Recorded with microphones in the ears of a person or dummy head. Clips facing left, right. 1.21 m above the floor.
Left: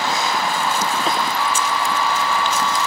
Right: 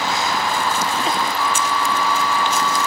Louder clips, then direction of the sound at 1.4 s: Even; 85° left.